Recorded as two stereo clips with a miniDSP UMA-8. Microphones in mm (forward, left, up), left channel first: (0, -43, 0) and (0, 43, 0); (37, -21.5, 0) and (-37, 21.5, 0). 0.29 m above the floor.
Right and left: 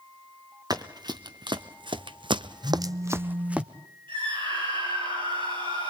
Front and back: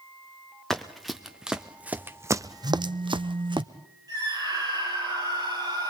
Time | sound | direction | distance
0.7 | running footsteps | 55° left | 1.5 m
2.6 | a phone buzzing | 120° left | 0.5 m
4.1 | a scream | 105° left | 9 m